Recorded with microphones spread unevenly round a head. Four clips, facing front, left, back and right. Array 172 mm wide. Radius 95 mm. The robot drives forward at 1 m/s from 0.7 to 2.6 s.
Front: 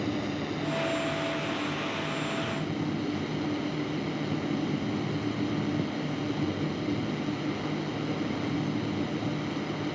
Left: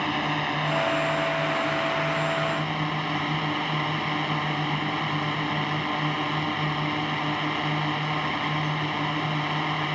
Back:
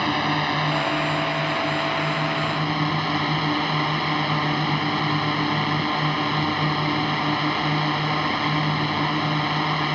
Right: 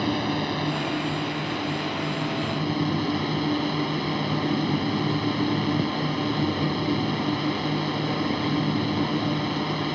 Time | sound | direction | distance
0.0 | a drone | 160° left | ?